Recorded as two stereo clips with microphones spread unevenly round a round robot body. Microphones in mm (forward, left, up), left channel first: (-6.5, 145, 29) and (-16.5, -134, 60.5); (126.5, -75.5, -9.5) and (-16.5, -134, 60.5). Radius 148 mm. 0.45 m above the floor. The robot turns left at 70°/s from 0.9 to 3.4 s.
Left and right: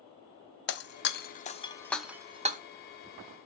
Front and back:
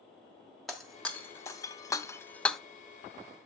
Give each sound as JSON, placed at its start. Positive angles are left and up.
{"t": 0.7, "sound": "breaking glass", "azimuth_deg": 80, "distance_m": 0.6}